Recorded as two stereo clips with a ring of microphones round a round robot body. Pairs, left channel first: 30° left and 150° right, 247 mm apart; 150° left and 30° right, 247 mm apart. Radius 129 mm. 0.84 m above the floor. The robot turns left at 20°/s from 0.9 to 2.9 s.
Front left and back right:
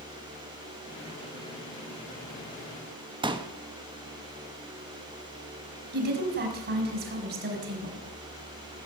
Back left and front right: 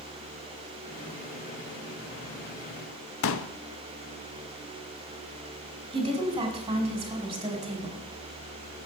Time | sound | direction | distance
3.2 | a pop | 140° left | 1.3 m
5.9 | a woman speaking | 105° right | 4 m